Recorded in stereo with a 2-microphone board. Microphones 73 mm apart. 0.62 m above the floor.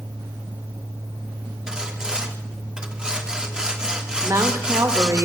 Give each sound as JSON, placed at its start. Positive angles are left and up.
{"t": 1.7, "sound": "sawing", "side_deg": -10, "distance_m": 1.2}
{"t": 4.2, "sound": "a woman speaking", "side_deg": -50, "distance_m": 2.0}